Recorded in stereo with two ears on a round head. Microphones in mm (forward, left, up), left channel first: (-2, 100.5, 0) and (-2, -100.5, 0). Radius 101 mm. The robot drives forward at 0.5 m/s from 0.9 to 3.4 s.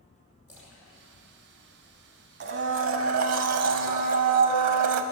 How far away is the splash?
About 5 m.